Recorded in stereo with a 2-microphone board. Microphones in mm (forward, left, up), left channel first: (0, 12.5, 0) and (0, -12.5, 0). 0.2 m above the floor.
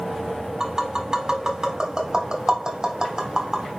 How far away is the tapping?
About 0.8 m.